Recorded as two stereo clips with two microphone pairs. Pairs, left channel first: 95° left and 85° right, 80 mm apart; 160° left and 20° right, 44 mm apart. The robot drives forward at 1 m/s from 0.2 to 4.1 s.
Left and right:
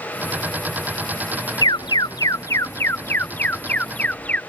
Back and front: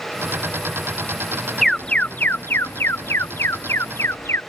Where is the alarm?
75° left; by 4.4 s 165° left.